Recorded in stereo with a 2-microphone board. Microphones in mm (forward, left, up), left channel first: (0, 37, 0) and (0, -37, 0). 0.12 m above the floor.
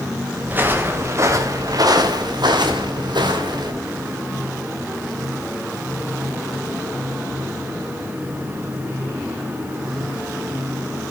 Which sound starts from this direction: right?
Footsteps, at 0.5 s.